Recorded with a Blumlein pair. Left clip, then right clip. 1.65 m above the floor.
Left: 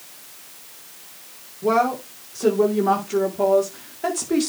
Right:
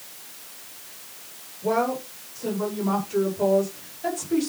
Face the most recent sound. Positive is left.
turn(degrees=35)